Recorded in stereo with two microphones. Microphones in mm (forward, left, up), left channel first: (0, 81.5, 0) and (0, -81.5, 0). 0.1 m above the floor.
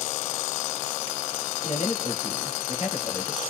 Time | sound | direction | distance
1.6 | a man speaking | 40° left (ahead or behind) | 1.7 m